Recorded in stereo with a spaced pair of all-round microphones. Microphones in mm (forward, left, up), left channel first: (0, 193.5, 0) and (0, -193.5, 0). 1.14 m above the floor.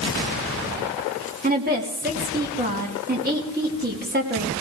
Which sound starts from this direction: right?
A woman speaking, at 1.4 s.